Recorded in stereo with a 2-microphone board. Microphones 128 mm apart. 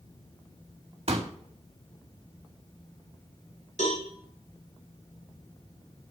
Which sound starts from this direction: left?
A cowbell, at 3.8 s.